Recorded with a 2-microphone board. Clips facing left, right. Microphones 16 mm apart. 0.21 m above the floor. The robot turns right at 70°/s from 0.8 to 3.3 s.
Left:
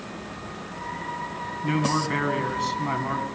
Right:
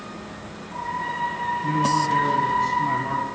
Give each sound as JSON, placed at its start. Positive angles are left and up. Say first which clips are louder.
{"t": 1.6, "sound": "a man speaking", "louder": "right 2 dB", "azimuth_deg": 55, "distance_m": 2.0}